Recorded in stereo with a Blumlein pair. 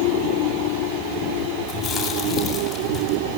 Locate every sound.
1.7 s chewing: 10° left, 8 m